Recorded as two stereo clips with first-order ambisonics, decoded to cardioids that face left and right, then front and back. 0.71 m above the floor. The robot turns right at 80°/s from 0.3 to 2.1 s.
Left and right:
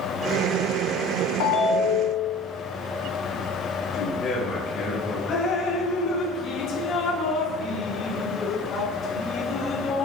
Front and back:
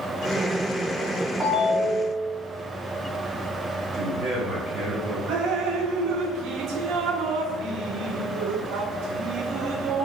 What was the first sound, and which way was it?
A ringtone, 95° left.